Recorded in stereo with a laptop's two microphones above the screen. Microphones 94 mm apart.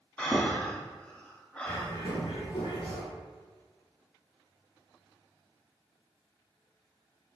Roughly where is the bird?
Left.